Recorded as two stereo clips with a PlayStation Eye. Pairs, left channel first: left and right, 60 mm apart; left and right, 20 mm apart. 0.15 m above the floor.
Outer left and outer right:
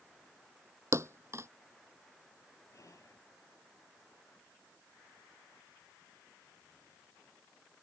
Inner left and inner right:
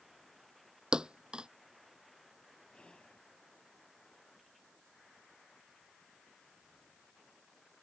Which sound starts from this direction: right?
A thud, at 0.9 s.